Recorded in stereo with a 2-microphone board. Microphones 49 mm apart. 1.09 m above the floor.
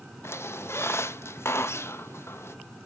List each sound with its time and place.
0.2 s a squeak: 65° left (ahead or behind), 0.6 m